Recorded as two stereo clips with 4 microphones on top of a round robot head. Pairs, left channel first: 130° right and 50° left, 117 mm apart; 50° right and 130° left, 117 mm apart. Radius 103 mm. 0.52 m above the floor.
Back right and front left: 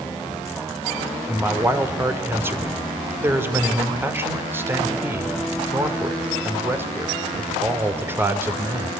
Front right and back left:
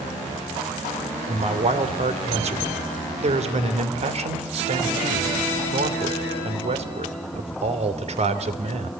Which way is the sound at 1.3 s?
120° left.